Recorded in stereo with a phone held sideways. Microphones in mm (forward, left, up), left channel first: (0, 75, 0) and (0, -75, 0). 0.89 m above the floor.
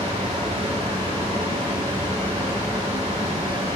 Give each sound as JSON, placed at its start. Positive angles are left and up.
{"t": 0.0, "sound": "a fan", "side_deg": -45, "distance_m": 2.5}